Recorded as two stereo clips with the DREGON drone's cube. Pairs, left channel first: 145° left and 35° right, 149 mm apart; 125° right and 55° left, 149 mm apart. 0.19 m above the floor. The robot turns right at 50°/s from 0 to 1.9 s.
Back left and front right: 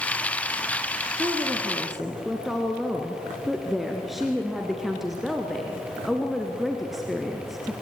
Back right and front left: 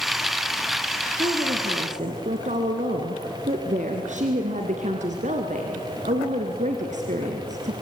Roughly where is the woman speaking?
Ahead.